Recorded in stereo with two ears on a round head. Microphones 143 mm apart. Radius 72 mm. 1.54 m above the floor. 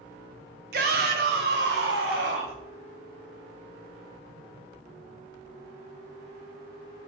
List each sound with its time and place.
0.7 s a shout: 65° right (ahead or behind), 1.1 m; by 2.6 s 80° right, 2.5 m